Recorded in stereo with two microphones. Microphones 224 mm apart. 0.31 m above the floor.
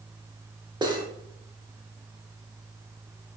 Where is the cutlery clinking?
20° right (ahead or behind), 0.5 m.